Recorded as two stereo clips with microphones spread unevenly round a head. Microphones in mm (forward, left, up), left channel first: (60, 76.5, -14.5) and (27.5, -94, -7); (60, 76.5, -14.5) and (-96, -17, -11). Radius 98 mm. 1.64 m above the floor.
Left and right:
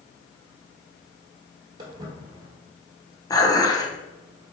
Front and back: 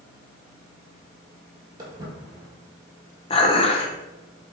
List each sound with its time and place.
1.8 s footsteps: 115° right, 1.7 m
3.3 s dishes clattering: 25° left, 0.7 m